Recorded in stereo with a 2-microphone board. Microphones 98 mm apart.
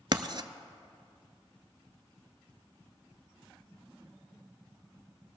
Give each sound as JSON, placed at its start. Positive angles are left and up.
{"t": 0.1, "sound": "writing", "side_deg": -50, "distance_m": 0.5}